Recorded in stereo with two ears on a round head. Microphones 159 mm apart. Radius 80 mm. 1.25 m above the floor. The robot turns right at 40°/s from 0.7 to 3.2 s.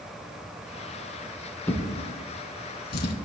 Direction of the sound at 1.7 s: 10° left (ahead or behind).